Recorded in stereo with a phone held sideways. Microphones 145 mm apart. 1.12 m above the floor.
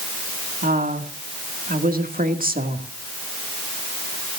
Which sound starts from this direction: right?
A woman speaking, at 0.6 s.